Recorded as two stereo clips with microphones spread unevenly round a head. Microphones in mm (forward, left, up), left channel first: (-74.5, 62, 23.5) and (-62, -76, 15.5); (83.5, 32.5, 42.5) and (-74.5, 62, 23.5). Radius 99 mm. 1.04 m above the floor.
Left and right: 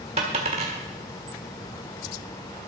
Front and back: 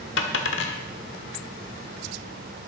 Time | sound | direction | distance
0.2 | a dropped coin | 20° right | 1.5 m